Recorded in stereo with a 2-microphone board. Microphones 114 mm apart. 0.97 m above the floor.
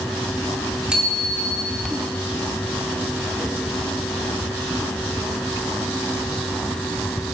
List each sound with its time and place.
0.9 s a bicycle bell: 10° right (ahead or behind), 2.5 m